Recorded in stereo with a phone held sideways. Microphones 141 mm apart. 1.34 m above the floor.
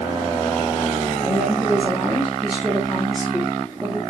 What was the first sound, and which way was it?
A woman speaking, 15° left (ahead or behind).